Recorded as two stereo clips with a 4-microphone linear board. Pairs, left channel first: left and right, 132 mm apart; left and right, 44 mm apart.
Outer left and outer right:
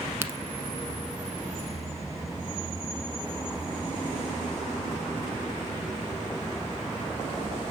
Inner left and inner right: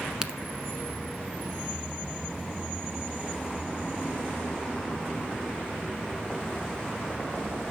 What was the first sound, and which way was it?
A crack, 20° right (ahead or behind).